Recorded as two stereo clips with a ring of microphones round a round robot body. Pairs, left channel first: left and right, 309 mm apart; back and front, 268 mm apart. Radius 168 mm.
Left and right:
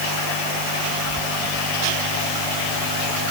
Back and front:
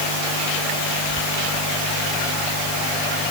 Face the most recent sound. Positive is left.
No sound to turn to.